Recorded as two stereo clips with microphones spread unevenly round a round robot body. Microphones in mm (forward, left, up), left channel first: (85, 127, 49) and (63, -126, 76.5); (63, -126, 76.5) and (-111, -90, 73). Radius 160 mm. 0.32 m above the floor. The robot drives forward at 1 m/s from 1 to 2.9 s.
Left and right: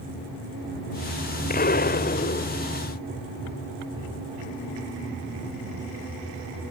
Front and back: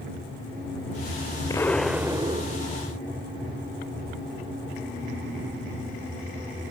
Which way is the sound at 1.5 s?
55° left.